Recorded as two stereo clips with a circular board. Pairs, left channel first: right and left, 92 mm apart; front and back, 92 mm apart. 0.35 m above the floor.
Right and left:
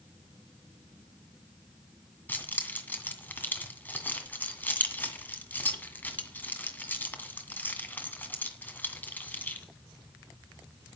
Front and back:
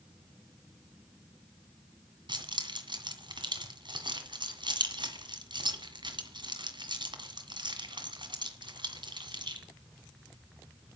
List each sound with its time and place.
2.3 s keys jangling: 160° right, 2.0 m